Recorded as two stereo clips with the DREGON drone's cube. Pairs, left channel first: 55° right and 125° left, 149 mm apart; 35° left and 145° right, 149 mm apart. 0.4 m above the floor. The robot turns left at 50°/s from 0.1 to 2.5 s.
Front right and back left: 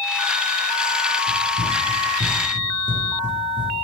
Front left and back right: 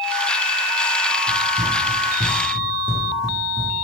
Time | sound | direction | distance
1.3 | running footsteps | 145° right | 1.3 m